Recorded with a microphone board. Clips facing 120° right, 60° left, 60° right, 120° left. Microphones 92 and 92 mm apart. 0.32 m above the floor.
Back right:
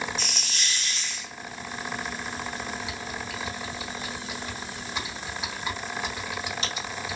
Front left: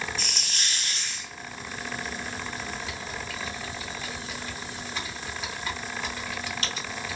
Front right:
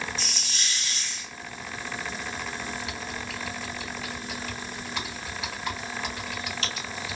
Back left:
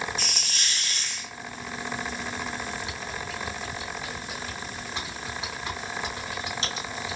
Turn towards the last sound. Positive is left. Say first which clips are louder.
# back right 1 dB, even
turn(degrees=175)